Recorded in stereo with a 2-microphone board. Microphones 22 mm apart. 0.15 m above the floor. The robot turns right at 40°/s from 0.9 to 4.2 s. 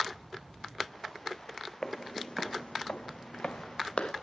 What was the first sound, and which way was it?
Footsteps, 40° left (ahead or behind).